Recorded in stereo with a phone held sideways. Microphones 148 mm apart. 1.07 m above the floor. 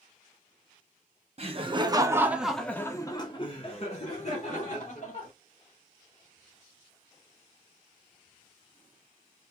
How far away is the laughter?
About 1.0 m.